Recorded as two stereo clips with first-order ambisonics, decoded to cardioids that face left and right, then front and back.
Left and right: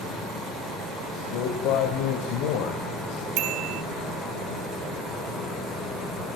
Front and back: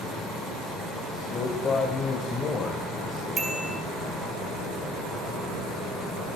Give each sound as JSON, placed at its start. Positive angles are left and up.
{"t": 1.1, "sound": "a man speaking", "azimuth_deg": 75, "distance_m": 3.0}
{"t": 3.4, "sound": "a bicycle bell", "azimuth_deg": -110, "distance_m": 3.0}